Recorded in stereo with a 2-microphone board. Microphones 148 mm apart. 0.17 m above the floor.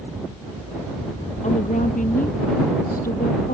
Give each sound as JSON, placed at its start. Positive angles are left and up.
{"t": 1.4, "sound": "a woman speaking", "side_deg": 55}